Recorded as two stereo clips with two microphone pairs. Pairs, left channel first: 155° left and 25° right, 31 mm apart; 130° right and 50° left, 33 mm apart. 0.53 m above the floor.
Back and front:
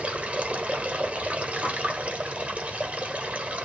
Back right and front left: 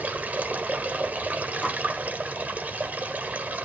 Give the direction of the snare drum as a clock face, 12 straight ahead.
2 o'clock.